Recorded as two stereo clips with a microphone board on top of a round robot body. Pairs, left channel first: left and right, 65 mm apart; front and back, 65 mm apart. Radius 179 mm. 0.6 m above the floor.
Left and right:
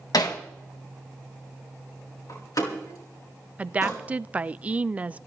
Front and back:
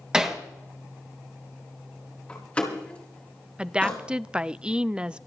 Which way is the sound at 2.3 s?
70° left.